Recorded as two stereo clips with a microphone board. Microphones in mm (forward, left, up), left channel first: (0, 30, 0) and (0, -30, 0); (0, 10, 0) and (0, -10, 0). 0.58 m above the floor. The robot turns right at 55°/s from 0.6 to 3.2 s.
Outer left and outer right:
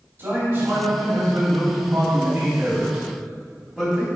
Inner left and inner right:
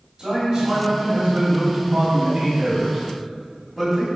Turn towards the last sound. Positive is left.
turn(degrees=10)